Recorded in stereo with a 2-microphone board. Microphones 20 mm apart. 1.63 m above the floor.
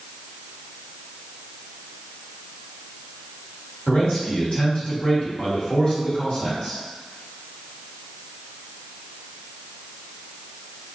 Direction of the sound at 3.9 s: 70° left (ahead or behind).